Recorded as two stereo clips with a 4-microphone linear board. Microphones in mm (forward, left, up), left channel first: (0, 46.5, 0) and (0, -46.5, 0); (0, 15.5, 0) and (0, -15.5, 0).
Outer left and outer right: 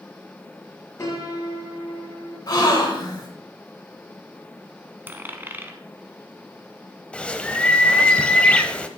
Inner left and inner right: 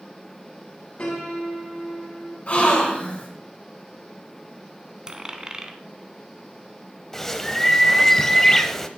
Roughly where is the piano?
Left.